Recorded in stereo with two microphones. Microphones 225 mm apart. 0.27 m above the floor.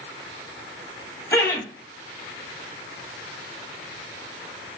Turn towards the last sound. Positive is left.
turn(degrees=10)  # may be behind; listen again after turning